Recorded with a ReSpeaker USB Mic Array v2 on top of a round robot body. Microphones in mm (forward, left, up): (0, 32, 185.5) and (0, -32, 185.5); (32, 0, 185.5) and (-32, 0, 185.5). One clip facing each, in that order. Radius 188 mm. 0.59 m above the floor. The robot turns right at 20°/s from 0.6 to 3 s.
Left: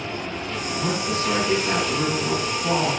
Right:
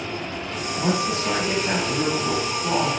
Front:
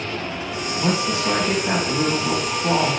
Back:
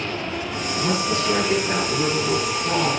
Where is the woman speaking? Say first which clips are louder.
Right 2 dB, front 1 dB; 50° right, 7 m; by 2.9 s 5° right, 7 m.